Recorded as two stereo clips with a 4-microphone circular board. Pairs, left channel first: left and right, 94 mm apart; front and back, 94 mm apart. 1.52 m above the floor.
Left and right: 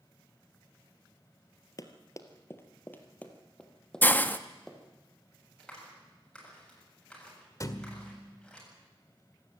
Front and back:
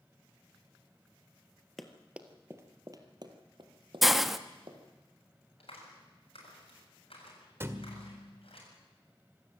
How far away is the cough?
I don't hear a cough.